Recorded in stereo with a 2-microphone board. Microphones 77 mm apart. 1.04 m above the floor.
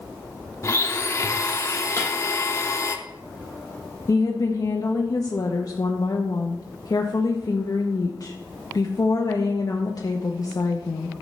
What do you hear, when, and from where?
0.6 s a blender: 35° left (ahead or behind), 0.6 m
2.0 s breaking glass: 35° left (ahead or behind), 3.5 m
4.1 s a woman speaking: 50° left (ahead or behind), 0.7 m